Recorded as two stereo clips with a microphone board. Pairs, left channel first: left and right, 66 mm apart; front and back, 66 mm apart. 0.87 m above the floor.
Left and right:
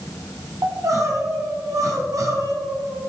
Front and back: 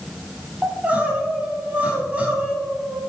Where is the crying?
115° right, 1.9 m.